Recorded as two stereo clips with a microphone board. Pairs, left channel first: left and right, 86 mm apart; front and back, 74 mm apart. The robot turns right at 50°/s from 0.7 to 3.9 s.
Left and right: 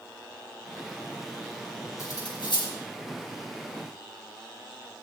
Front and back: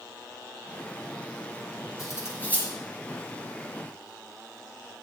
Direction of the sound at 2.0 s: 40° left.